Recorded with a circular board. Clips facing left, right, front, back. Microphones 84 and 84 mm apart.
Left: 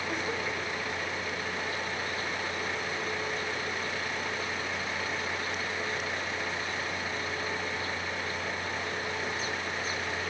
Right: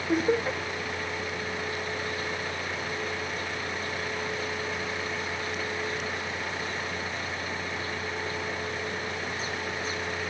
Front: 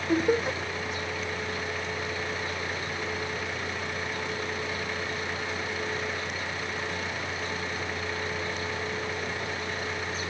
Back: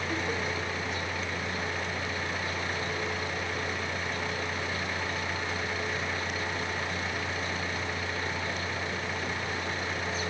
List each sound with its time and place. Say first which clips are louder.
0.1 s laughter: right 11 dB, front 10 dB; 45° right